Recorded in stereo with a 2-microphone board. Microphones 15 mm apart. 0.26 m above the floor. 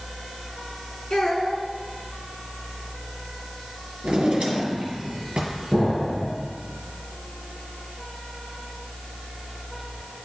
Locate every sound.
1.1 s a child speaking: 45° left (ahead or behind), 2.5 m
4.0 s a drawer: 75° right (ahead or behind), 1.8 m
5.7 s an explosion: 30° left (ahead or behind), 1.9 m